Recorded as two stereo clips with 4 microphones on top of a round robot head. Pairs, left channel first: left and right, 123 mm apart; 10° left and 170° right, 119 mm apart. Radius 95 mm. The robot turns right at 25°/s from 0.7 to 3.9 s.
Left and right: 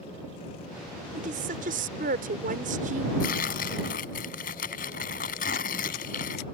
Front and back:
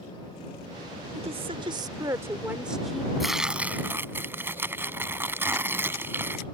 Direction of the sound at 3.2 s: 100° left.